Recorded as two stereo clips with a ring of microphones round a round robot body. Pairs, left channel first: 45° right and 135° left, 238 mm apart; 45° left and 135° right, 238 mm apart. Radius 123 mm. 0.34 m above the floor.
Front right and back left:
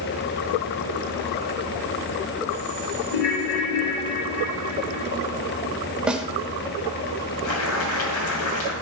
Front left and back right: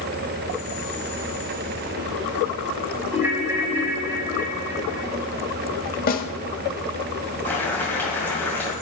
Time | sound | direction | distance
3.1 | a ringtone | 55° right | 1.4 m
6.1 | a snare drum | 50° left | 0.9 m
7.5 | boiling | 35° right | 2.5 m